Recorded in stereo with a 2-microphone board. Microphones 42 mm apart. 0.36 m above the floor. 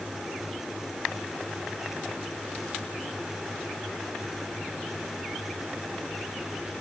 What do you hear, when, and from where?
Only background noise.